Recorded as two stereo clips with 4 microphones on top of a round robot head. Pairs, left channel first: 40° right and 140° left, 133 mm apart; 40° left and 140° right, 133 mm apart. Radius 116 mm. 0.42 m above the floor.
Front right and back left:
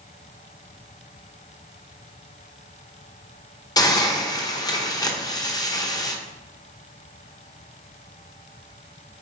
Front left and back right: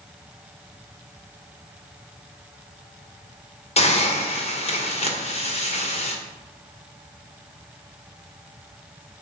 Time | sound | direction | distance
3.8 | a hiss | 15° left | 1.8 m